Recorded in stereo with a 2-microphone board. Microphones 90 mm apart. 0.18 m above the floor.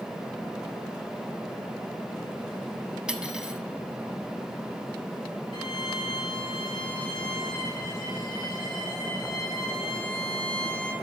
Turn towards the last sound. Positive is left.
turn(degrees=50)  # may be behind; listen again after turning